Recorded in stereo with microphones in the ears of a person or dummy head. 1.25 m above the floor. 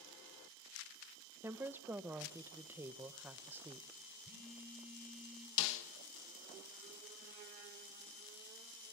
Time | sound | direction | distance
1.4 | a woman speaking | 10° right (ahead or behind) | 0.7 m
4.2 | a phone buzzing | centre (ahead or behind) | 1.0 m
5.6 | a snare drum | 70° left (ahead or behind) | 1.2 m